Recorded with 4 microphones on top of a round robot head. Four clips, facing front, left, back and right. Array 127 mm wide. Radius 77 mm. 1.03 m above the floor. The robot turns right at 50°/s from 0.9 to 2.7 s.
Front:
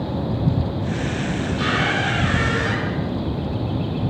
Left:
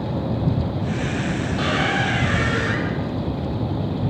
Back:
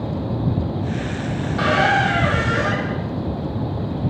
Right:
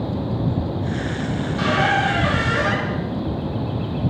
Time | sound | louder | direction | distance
1.4 | a squeak | right 5 dB, back 6 dB | 155° left | 4 m